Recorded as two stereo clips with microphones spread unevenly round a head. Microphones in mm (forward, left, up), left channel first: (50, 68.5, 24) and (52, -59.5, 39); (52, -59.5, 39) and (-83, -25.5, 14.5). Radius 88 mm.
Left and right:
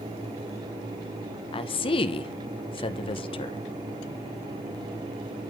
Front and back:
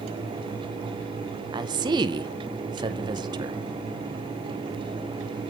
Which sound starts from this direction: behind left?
A woman speaking, at 1.5 s.